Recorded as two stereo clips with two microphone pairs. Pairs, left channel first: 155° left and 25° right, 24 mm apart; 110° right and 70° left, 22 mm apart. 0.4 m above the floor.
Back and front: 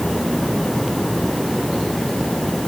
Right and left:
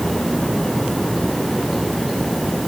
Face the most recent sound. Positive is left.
No sound to turn to.